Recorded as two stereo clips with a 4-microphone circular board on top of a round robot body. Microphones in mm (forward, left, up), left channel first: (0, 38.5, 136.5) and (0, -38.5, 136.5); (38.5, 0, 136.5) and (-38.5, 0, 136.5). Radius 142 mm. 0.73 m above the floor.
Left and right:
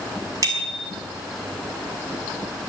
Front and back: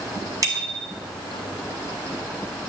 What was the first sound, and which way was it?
A bicycle bell, 135° right.